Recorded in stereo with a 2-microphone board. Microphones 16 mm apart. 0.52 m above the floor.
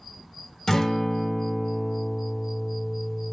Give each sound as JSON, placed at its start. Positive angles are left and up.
{"t": 0.7, "sound": "a guitar", "side_deg": 25, "distance_m": 0.8}